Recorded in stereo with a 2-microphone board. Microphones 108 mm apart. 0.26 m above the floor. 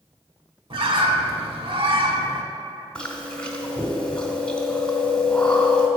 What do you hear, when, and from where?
0.7 s a bird: 55° right (ahead or behind), 0.6 m
3.0 s chewing: 10° left (ahead or behind), 1.2 m